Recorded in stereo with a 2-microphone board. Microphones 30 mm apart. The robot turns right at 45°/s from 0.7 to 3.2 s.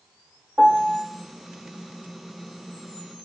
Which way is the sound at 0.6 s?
30° right (ahead or behind).